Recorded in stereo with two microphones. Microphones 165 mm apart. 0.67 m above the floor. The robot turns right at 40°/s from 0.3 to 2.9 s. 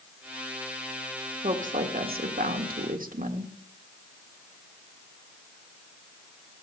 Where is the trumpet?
I don't hear a trumpet.